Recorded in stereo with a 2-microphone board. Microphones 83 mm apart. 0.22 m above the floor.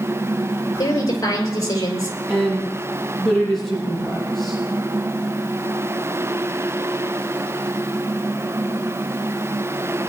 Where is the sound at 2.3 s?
5° left (ahead or behind), 8 m.